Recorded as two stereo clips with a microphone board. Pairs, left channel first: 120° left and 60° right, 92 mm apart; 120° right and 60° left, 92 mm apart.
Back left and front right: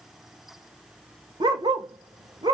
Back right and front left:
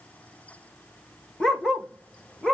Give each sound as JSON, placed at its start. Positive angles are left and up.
{"t": 1.4, "sound": "a dog barking", "azimuth_deg": -35, "distance_m": 1.1}